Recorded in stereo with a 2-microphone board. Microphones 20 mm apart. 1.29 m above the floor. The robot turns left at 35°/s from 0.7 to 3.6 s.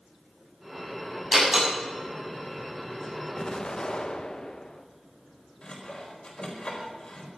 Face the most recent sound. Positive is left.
turn(degrees=50)  # may be behind; listen again after turning